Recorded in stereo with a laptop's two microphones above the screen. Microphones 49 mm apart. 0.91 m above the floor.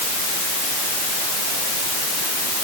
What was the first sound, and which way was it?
Only background noise.